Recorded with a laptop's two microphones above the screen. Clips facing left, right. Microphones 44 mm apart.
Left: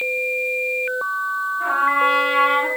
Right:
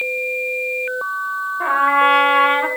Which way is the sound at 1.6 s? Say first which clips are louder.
Right 4 dB; 45° right (ahead or behind).